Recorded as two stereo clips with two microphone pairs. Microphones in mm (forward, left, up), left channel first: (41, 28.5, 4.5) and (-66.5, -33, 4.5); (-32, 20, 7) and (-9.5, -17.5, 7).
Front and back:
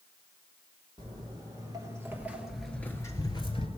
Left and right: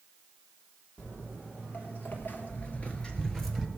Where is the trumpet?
I don't hear a trumpet.